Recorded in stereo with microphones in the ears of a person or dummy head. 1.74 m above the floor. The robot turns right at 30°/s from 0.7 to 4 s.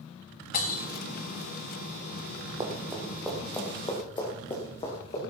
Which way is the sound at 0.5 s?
35° left (ahead or behind).